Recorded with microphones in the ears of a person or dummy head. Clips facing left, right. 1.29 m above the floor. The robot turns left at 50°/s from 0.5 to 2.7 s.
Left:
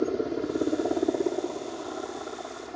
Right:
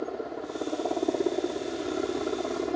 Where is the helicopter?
30° left; by 2.8 s 80° right.